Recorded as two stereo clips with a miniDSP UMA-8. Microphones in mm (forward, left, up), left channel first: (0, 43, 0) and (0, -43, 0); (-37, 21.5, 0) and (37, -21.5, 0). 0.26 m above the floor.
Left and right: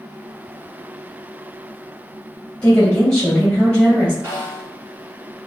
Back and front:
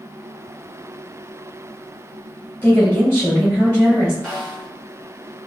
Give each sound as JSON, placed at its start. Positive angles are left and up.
{"t": 2.6, "sound": "a woman speaking", "azimuth_deg": 150, "distance_m": 1.2}
{"t": 4.2, "sound": "a snare drum", "azimuth_deg": -125, "distance_m": 1.6}